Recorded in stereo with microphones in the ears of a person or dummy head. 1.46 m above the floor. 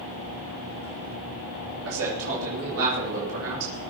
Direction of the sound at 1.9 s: 80° right.